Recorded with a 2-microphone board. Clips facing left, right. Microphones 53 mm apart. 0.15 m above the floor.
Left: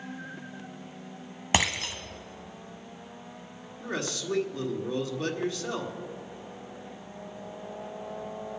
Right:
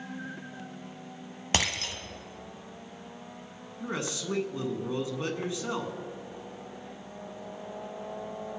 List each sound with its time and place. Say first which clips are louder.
1.5 s breaking glass: left 3 dB; 10° left (ahead or behind), 1.1 m
3.8 s a man speaking: left 1 dB; 20° right (ahead or behind), 1.5 m